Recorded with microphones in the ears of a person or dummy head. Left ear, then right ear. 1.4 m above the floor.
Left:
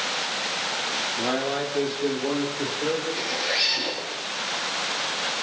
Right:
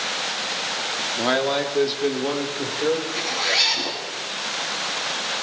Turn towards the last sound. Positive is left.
turn(degrees=-50)  # may be behind; listen again after turning